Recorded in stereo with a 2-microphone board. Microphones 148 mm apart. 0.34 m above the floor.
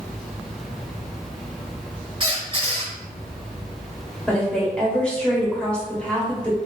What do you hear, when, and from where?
2.2 s a squeak: 35° right (ahead or behind), 0.6 m
4.3 s a woman speaking: 5° left (ahead or behind), 0.9 m